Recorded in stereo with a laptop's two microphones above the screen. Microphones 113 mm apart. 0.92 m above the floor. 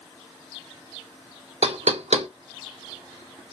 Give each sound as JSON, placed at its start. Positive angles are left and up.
{"t": 1.6, "sound": "knocking", "side_deg": -75, "distance_m": 0.5}